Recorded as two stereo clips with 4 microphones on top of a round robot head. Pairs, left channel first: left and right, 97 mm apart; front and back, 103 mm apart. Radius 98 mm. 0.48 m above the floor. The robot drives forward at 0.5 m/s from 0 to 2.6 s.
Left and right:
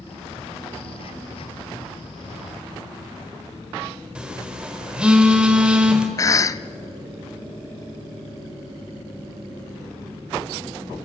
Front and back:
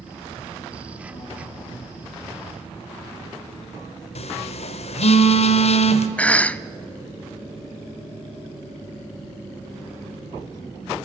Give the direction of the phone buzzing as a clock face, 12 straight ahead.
12 o'clock.